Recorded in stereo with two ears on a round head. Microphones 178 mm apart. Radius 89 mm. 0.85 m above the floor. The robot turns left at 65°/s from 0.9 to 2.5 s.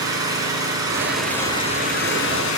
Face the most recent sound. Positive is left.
turn(degrees=95)